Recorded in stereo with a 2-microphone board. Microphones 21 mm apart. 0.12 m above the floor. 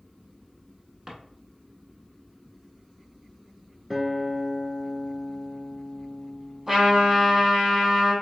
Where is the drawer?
20° right (ahead or behind), 0.7 m.